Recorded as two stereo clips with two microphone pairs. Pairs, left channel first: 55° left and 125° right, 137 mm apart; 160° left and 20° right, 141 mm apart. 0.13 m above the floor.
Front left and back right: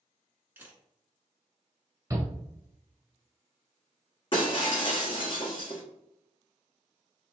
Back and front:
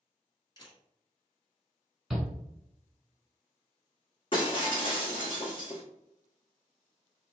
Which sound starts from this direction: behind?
A camera shutter, at 0.6 s.